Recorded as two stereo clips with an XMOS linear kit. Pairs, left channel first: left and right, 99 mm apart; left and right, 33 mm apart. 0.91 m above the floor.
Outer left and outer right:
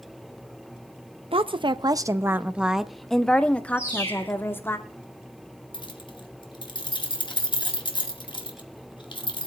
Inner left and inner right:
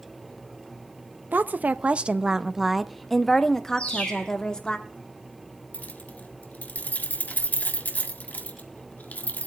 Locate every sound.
1.3 s a woman speaking: 65° right (ahead or behind), 0.7 m; by 4.8 s 20° left (ahead or behind), 1.9 m
3.8 s a bird: 20° left (ahead or behind), 6 m
5.7 s keys jangling: 50° left (ahead or behind), 1.6 m